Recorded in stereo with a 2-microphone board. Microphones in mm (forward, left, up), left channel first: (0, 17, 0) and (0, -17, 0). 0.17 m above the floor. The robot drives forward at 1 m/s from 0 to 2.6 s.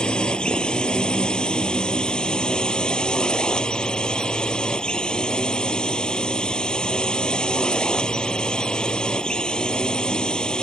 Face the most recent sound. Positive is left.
turn(degrees=25)  # may be behind; listen again after turning